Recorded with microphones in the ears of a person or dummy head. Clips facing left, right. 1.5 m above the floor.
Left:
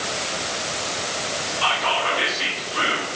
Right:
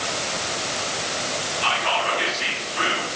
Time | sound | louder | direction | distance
1.6 | whispering | left 1 dB | 85° left | 6 m